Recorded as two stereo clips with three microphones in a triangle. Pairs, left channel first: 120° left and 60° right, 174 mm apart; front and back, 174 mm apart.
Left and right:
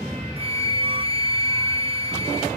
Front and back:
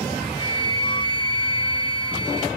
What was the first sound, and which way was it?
A flute, 40° right.